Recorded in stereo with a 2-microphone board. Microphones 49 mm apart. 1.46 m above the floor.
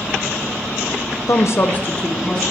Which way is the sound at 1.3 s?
65° left (ahead or behind).